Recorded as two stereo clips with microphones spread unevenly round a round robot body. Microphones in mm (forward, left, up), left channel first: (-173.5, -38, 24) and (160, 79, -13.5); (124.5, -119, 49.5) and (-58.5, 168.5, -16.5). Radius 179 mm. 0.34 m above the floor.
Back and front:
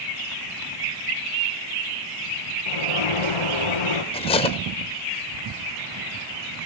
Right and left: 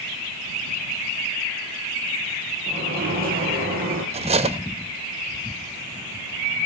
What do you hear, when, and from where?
2.7 s a sliding door: 170° right, 2 m
4.1 s cutlery clinking: 130° left, 0.7 m